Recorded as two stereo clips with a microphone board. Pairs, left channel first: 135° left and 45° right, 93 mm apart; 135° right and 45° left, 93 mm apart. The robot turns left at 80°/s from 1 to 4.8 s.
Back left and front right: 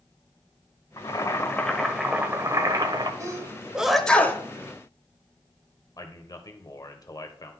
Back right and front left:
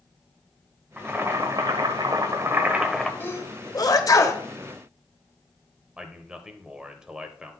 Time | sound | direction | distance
1.0 | boiling | 115° left | 1.1 m
3.2 | a sneeze | 80° right | 1.1 m
6.0 | a man speaking | 120° left | 1.1 m